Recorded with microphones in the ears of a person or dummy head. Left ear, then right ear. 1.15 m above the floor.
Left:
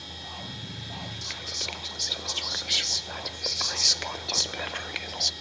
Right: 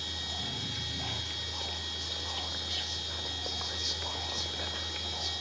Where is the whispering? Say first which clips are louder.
Left 3 dB; 65° left (ahead or behind), 0.9 m.